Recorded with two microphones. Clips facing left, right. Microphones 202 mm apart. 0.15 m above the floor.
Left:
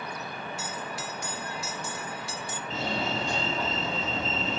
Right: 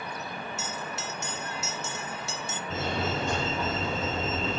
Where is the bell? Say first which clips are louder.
Even; 25° right (ahead or behind), 0.6 m.